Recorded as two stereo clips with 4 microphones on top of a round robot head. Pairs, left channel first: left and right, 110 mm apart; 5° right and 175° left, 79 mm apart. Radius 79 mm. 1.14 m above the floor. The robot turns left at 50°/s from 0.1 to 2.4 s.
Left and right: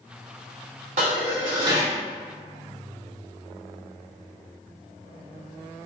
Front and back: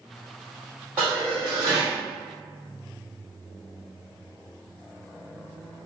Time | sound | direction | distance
1.0 | dishes clattering | 105° right | 1.4 m